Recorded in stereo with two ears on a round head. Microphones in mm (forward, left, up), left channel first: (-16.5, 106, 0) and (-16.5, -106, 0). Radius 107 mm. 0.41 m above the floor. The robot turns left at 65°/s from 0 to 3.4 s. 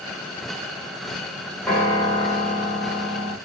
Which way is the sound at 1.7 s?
175° left.